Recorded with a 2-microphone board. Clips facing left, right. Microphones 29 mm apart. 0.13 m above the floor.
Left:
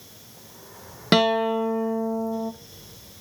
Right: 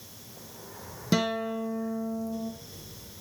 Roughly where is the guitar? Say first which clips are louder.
Left 8 dB; left.